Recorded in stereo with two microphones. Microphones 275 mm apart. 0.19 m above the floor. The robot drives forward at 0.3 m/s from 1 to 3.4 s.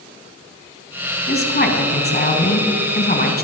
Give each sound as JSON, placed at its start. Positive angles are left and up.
{"t": 1.3, "sound": "a woman speaking", "side_deg": 35, "distance_m": 1.3}